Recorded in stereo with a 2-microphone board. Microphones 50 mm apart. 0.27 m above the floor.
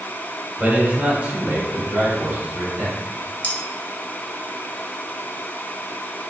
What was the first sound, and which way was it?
A man speaking, 25° right (ahead or behind).